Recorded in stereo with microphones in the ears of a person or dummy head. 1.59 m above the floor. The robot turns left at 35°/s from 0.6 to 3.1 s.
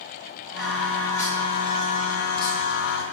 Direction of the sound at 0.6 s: Straight behind.